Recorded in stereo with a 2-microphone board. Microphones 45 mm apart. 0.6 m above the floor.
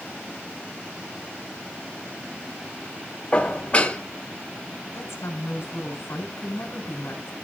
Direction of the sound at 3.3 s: 30° left (ahead or behind).